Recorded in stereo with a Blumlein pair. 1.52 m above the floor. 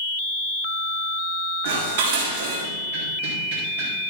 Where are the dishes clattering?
60° right, 5 m.